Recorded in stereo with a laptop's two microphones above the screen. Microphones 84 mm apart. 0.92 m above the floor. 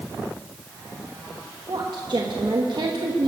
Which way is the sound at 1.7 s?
60° right (ahead or behind).